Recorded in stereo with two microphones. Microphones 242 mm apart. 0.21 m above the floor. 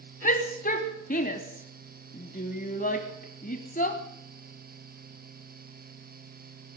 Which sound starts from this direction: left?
A shout, at 0.2 s.